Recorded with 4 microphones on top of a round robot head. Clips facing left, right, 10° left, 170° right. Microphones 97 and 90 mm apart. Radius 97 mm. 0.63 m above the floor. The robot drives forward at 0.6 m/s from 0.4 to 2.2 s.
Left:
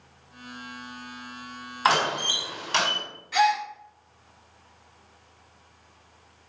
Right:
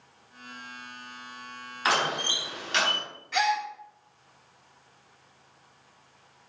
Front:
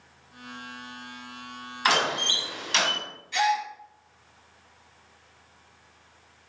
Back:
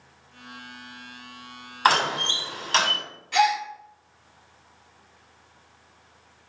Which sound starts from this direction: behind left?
A door slam, at 1.9 s.